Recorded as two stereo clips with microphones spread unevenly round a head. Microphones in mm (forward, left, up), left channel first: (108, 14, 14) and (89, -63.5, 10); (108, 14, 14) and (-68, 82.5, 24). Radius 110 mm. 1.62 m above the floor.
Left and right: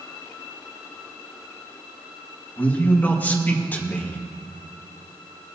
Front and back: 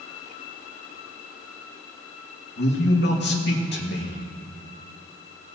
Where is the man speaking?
10° left, 2.5 m.